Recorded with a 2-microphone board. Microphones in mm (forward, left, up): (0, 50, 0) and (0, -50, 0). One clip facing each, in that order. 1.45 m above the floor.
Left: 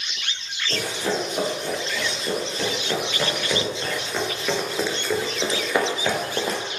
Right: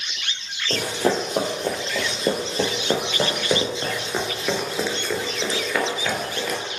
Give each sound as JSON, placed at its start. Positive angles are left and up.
{"t": 0.7, "sound": "running footsteps", "side_deg": -50, "distance_m": 2.5}